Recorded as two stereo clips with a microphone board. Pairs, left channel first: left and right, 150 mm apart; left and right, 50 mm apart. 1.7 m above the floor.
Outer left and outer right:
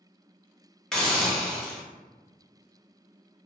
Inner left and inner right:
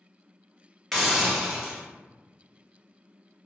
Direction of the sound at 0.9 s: 5° left (ahead or behind).